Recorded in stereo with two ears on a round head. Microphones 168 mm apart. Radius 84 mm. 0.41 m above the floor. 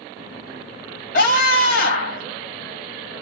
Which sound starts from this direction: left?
A scream, at 1.1 s.